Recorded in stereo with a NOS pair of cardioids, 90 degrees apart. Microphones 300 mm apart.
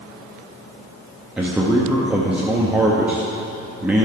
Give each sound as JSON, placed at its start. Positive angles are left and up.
{"t": 1.4, "sound": "a man speaking", "azimuth_deg": -5, "distance_m": 1.1}